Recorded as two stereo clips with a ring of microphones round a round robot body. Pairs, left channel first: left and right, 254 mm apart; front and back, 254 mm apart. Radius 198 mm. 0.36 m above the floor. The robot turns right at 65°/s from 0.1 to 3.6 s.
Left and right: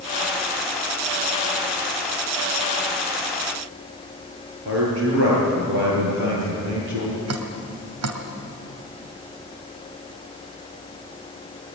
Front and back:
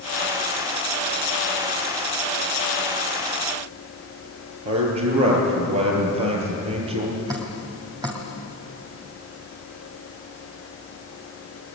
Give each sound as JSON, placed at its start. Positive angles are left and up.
{"t": 4.7, "sound": "a man speaking", "azimuth_deg": -145, "distance_m": 7.5}
{"t": 7.3, "sound": "dripping", "azimuth_deg": -105, "distance_m": 2.0}